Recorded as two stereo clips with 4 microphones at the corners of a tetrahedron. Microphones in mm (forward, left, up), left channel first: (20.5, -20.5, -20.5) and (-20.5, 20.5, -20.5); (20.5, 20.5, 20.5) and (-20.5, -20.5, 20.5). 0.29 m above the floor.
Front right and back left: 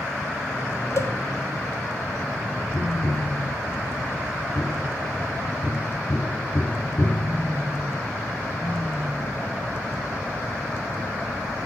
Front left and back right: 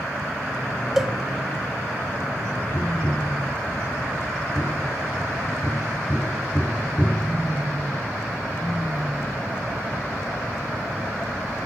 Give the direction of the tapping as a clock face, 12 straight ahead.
1 o'clock.